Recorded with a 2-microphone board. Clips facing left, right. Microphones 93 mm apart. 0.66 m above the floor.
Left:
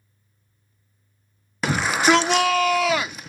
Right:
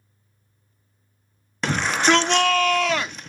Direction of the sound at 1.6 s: 5° left (ahead or behind).